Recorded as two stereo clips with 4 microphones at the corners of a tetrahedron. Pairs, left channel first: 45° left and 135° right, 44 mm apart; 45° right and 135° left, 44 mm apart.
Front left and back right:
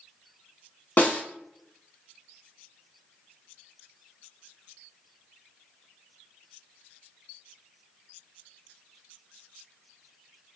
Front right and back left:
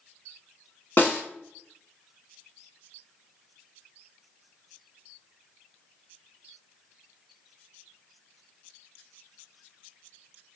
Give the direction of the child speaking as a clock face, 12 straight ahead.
I don't hear a child speaking.